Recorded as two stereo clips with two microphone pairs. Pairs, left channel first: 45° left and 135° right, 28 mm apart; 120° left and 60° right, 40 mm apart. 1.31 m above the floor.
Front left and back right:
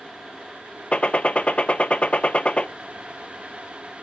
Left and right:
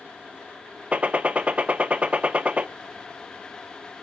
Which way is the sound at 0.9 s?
5° right.